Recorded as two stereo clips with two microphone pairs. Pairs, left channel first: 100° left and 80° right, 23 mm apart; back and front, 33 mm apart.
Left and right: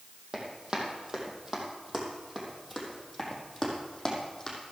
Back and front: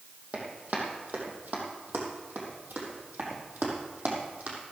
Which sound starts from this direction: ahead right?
Running footsteps, at 0.3 s.